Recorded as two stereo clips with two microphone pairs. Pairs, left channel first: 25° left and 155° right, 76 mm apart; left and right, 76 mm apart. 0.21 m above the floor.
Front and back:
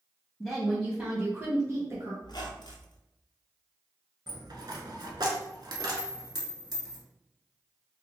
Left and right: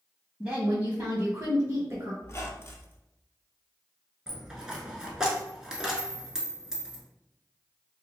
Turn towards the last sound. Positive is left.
turn(degrees=-175)